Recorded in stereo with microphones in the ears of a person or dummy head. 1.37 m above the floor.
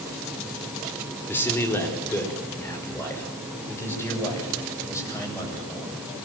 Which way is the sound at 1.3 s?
10° left (ahead or behind).